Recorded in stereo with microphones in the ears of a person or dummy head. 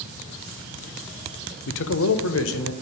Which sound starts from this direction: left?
A man speaking, at 1.7 s.